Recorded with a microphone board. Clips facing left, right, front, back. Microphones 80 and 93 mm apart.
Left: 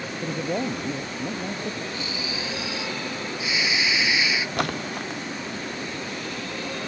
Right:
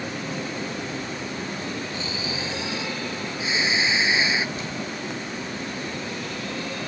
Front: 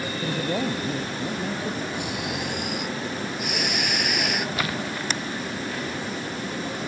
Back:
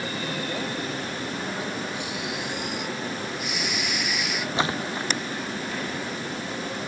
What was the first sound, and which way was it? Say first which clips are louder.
A man speaking: left 4 dB, front 8 dB; 60° left.